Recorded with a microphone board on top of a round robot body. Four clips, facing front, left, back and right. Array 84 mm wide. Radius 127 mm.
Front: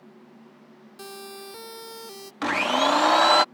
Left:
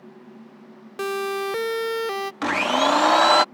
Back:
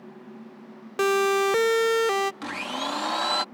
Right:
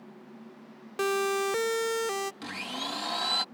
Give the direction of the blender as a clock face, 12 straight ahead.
10 o'clock.